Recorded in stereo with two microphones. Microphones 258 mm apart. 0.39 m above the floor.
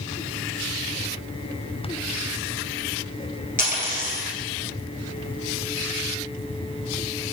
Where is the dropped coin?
30° left (ahead or behind), 1.4 m.